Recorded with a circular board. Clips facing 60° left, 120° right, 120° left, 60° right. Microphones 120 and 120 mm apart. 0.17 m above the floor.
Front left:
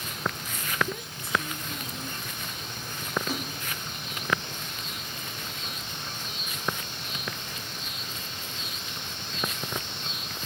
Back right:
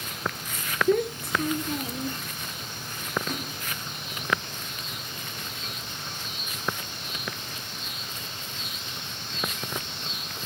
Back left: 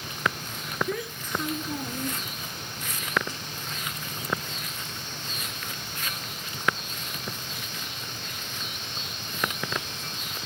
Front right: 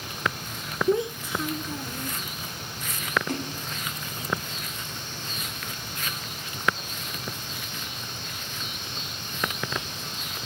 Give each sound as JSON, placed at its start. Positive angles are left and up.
{"t": 0.9, "sound": "a child speaking", "azimuth_deg": -115}
{"t": 3.3, "sound": "a splash", "azimuth_deg": -25}